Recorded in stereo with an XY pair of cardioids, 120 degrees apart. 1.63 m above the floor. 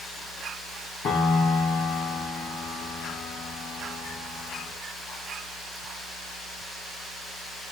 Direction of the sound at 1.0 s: 60° left.